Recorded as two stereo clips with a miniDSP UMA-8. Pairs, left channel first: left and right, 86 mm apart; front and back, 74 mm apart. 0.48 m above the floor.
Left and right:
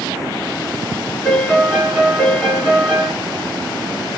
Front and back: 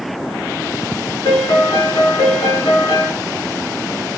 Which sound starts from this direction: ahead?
A piano, at 1.2 s.